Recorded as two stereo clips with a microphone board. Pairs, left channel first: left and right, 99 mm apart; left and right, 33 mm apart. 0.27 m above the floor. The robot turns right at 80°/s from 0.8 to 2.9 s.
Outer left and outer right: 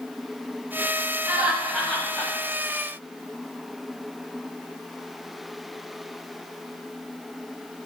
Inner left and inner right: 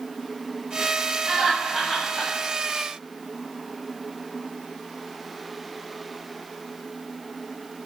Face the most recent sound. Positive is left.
turn(degrees=90)